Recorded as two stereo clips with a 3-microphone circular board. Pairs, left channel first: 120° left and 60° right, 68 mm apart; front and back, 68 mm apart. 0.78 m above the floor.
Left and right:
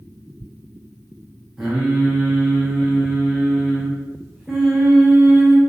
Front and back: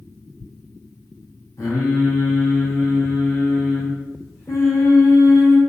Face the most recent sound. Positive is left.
turn(degrees=25)